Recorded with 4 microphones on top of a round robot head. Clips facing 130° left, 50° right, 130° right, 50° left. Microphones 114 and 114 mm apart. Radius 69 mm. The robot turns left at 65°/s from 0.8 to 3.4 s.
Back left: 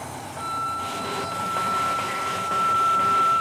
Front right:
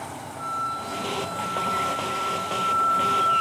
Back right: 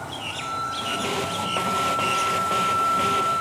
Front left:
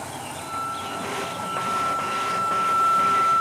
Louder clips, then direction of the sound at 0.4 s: Back left 1 dB, back right 2 dB; 110° left.